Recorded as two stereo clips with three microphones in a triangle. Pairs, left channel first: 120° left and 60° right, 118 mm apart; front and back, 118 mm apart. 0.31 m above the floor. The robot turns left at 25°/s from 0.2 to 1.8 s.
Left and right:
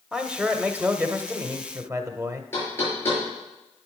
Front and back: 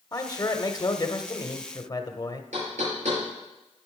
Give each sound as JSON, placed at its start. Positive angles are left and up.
{"t": 0.1, "sound": "a man speaking", "azimuth_deg": 20, "distance_m": 1.0}
{"t": 2.5, "sound": "knocking", "azimuth_deg": -170, "distance_m": 6.0}